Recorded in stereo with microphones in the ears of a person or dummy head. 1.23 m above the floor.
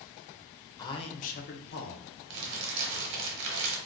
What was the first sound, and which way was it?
A man speaking, 20° left (ahead or behind).